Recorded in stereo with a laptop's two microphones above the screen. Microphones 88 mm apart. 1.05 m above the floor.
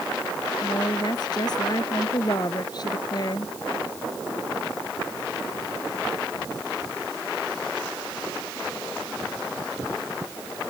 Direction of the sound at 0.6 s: 45° left (ahead or behind).